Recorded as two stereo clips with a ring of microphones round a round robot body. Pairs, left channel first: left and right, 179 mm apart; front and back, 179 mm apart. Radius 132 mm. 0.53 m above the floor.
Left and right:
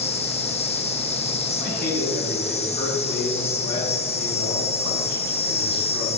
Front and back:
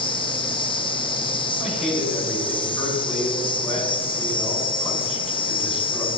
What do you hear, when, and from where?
0.0 s an insect: 50° left, 0.8 m
1.6 s a man speaking: 55° left, 3.5 m